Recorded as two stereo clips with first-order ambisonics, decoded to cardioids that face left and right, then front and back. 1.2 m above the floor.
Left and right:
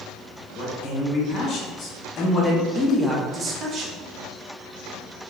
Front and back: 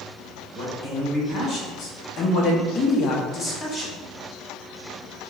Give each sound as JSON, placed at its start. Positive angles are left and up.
{"t": 0.6, "sound": "a man speaking", "azimuth_deg": 50, "distance_m": 1.9}